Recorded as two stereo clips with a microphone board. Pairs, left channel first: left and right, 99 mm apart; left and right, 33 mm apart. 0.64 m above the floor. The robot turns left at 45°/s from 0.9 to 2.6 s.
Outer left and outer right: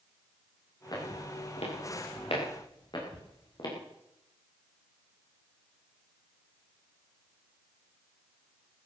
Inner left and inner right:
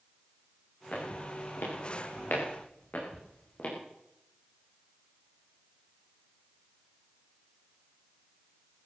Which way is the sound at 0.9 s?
40° left (ahead or behind).